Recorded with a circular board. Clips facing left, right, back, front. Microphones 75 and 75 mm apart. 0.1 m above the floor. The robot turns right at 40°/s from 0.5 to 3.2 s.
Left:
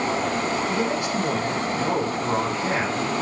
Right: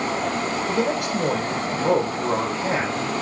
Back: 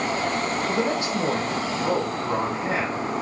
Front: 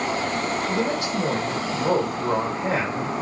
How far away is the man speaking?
About 4 m.